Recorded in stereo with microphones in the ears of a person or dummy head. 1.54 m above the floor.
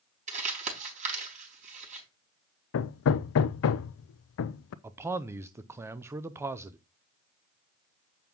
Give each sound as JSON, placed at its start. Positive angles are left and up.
{"t": 0.3, "sound": "crumpling", "side_deg": -40, "distance_m": 4.0}
{"t": 2.7, "sound": "hammering", "side_deg": 85, "distance_m": 0.6}
{"t": 4.8, "sound": "a man speaking", "side_deg": -15, "distance_m": 0.5}